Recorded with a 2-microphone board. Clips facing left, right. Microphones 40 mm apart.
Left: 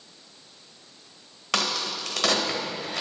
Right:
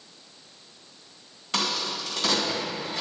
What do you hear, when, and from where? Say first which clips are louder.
1.5 s a crack: left 1 dB; 80° left, 1.9 m